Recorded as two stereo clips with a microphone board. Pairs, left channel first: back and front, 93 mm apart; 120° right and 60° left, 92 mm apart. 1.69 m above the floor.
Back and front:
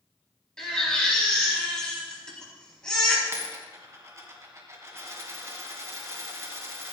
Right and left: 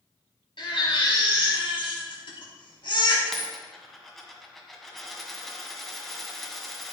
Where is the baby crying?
100° right, 5 m.